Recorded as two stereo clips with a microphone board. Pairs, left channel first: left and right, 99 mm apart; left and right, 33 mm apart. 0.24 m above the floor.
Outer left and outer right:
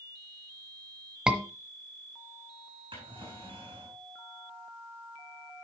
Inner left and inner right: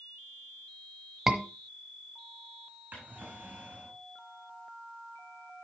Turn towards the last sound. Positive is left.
turn(degrees=-60)  # may be behind; listen again after turning